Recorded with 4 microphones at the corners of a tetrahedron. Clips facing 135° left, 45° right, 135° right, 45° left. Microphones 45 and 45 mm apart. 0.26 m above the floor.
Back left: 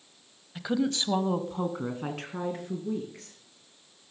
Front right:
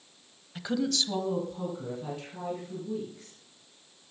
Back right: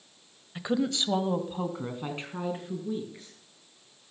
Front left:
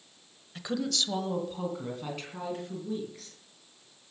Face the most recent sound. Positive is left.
turn(degrees=155)